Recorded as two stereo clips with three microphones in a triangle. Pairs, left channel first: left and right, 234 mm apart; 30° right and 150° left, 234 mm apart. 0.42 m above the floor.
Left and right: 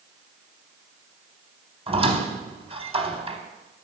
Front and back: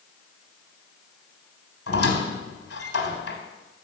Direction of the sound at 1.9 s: 20° right.